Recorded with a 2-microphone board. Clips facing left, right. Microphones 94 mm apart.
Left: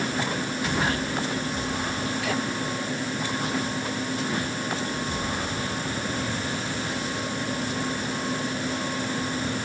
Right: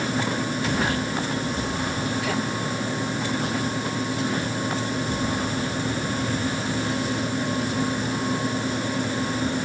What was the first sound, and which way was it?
Only background noise.